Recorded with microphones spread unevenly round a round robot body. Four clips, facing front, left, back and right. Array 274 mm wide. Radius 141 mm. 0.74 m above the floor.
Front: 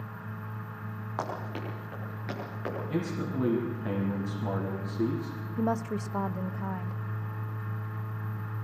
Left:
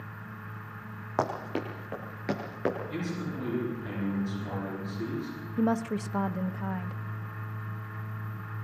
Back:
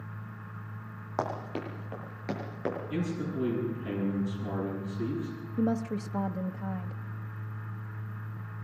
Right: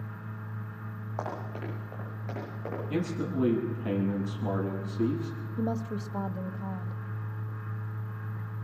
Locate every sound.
1.2 s running footsteps: 100° left, 8.5 m; by 2.8 s 95° left, 9.5 m
2.9 s a man speaking: 40° right, 8.5 m
5.6 s a woman speaking: 55° left, 0.8 m